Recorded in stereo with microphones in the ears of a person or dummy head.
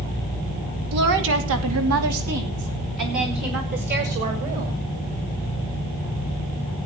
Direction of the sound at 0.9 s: 60° right (ahead or behind).